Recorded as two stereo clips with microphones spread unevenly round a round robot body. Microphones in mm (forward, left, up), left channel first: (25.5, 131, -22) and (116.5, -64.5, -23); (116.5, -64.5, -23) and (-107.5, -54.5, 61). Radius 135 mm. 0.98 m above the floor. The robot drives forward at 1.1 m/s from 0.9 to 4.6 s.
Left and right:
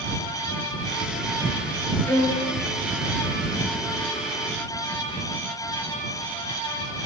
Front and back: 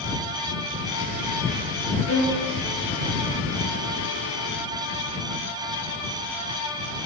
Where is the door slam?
No door slam in this recording.